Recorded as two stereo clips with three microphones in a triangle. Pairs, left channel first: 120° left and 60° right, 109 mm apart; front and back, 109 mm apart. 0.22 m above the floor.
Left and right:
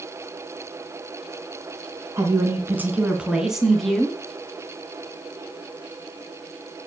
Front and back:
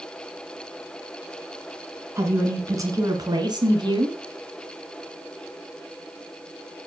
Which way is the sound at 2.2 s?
120° right.